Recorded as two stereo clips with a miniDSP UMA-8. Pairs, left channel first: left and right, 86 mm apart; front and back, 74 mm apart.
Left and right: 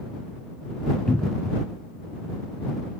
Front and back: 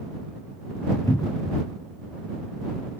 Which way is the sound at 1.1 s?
15° left.